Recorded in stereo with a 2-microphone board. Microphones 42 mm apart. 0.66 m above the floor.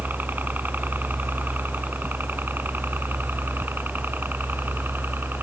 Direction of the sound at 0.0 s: 45° right (ahead or behind).